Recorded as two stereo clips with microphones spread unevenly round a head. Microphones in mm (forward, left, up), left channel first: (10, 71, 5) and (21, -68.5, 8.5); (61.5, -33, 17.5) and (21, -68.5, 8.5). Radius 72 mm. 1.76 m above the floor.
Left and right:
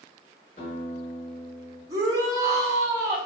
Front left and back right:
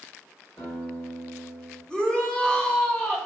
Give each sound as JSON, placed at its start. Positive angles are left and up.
{"t": 0.6, "sound": "a guitar", "azimuth_deg": 100, "distance_m": 1.9}
{"t": 1.9, "sound": "a shout", "azimuth_deg": -25, "distance_m": 1.2}